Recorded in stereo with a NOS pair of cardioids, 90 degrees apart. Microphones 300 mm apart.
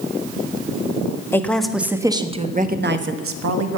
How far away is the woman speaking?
About 1.6 m.